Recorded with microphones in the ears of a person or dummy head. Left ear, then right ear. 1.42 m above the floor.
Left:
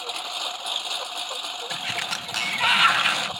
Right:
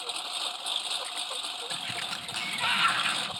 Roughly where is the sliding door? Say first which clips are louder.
Left 8 dB; left.